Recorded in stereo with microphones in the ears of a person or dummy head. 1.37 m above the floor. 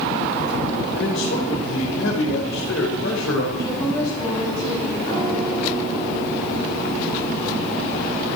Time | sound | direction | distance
0.9 | a man speaking | 65° left (ahead or behind) | 4.5 m
3.6 | a woman speaking | 25° left (ahead or behind) | 9 m
5.1 | a piano | 15° left (ahead or behind) | 7.5 m